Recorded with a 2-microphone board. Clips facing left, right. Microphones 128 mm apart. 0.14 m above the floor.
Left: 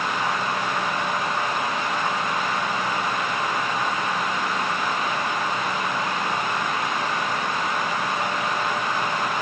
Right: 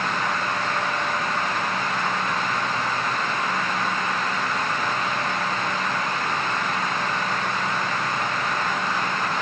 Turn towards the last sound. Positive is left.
No sound to turn to.